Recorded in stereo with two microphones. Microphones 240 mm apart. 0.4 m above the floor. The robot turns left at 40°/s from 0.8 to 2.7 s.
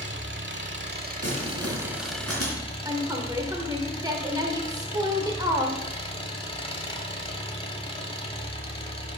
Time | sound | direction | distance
0.0 | an engine running | 130° right | 1.0 m
1.2 | crumpling | 50° right (ahead or behind) | 3 m
2.9 | a woman speaking | 15° right (ahead or behind) | 1.2 m